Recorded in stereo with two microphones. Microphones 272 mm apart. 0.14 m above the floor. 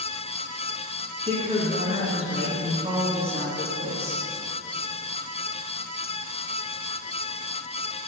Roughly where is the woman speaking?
Right.